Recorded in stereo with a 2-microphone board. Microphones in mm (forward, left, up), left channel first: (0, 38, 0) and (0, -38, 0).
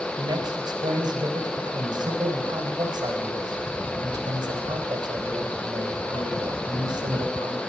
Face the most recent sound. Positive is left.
turn(degrees=-75)  # may be behind; listen again after turning